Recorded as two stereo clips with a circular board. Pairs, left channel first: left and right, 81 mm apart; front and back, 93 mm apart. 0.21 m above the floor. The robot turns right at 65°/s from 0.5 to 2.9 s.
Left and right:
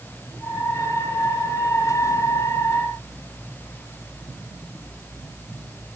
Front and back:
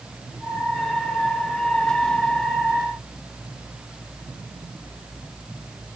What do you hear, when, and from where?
Only background noise.